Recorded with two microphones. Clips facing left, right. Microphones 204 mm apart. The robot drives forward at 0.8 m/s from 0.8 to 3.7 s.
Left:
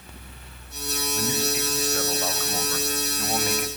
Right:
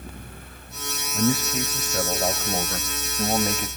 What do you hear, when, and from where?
1.1 s a man speaking: 30° right (ahead or behind), 1.5 m; by 3.7 s 25° right (ahead or behind), 1.7 m